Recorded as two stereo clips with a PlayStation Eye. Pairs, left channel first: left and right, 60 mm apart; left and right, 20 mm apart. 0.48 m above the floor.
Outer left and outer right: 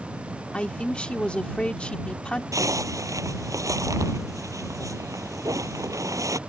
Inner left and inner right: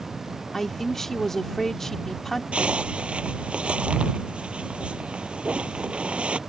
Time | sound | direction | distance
0.5 | a man speaking | 20° left (ahead or behind) | ?
2.5 | a zipper | 55° right (ahead or behind) | ?